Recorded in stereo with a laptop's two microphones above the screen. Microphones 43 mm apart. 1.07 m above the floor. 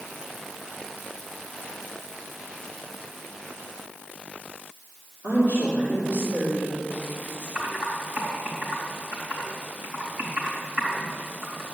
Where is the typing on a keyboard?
50° right (ahead or behind), 4 m.